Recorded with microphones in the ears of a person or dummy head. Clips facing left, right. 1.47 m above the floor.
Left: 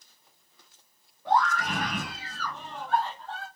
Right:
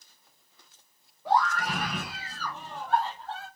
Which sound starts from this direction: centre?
A scream, at 1.2 s.